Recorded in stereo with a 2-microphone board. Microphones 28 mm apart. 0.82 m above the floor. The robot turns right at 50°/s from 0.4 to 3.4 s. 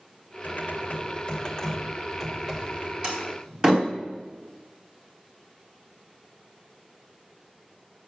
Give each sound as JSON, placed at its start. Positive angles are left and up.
{"t": 0.4, "sound": "typing on a keyboard", "azimuth_deg": 100, "distance_m": 2.5}
{"t": 3.0, "sound": "a door slam", "side_deg": -50, "distance_m": 3.5}